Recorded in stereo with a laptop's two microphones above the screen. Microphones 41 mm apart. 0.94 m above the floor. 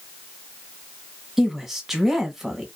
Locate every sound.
1.4 s a woman speaking: 5° right (ahead or behind), 1.3 m